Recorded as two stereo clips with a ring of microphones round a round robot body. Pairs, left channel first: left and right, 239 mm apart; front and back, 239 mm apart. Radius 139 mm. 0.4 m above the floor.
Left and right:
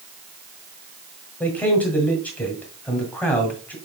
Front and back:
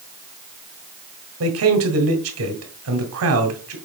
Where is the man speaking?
175° left, 1.9 m.